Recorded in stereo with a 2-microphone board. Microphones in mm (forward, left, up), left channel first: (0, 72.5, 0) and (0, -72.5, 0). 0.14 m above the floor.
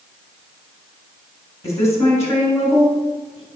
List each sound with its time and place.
1.6 s a woman speaking: 20° left (ahead or behind), 1.4 m